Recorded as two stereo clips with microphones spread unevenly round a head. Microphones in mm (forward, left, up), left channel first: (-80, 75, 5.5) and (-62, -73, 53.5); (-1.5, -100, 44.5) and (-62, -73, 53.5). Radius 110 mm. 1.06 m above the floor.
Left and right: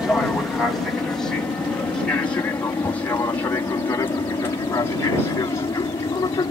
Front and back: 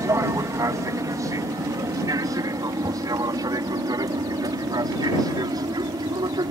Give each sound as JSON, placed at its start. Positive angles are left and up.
{"t": 0.0, "sound": "an aircraft", "azimuth_deg": 175}